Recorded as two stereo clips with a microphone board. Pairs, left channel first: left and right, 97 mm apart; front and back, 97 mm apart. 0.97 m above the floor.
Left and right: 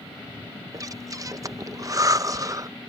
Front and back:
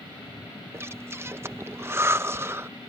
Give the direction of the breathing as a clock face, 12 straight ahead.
4 o'clock.